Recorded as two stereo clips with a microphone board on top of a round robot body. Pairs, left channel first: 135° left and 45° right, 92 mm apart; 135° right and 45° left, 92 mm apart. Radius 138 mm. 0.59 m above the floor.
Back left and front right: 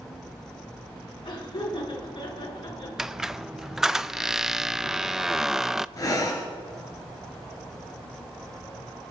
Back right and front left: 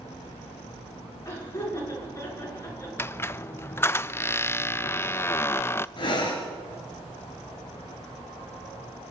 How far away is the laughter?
About 10 m.